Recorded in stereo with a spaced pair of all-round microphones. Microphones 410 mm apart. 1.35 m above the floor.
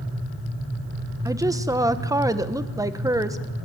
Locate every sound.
1.2 s a woman speaking: 10° right (ahead or behind), 1.3 m